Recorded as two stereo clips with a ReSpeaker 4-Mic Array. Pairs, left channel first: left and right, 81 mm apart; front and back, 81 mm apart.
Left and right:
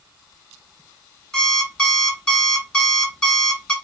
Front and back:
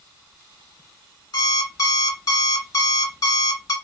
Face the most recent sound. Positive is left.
turn(degrees=15)